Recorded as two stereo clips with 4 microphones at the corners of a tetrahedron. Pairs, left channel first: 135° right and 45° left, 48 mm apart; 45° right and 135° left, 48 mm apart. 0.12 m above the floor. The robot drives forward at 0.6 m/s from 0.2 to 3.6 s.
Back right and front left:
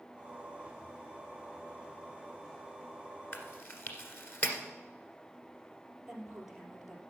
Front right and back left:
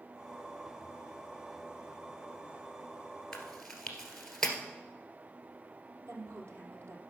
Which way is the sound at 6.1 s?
125° left.